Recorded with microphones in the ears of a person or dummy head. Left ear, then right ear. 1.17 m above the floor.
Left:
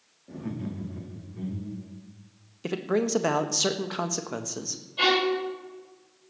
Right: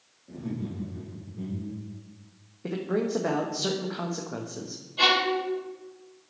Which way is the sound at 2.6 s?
65° left (ahead or behind).